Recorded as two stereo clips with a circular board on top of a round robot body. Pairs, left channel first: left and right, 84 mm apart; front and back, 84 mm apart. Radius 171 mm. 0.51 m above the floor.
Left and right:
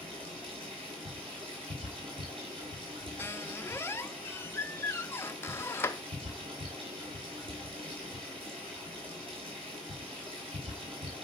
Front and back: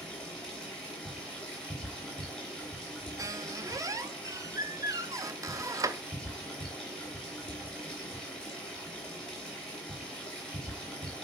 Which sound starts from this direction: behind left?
A squeak, at 3.2 s.